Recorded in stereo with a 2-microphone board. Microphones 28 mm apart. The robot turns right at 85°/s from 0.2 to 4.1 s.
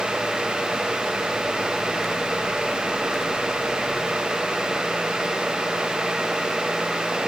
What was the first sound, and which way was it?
Only background noise.